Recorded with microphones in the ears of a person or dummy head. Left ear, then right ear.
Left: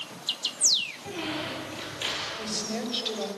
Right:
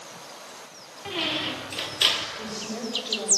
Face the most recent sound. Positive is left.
turn(degrees=20)  # may be behind; listen again after turning